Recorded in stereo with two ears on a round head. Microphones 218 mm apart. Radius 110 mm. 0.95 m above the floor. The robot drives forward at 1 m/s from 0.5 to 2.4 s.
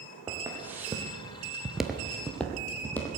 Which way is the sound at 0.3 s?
10° right (ahead or behind).